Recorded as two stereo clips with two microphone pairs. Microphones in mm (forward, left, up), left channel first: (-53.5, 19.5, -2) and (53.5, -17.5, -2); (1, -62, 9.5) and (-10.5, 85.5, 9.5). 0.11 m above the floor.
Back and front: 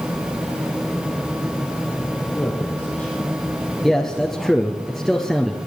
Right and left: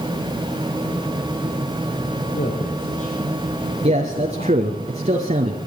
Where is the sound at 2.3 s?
120° right, 4.5 m.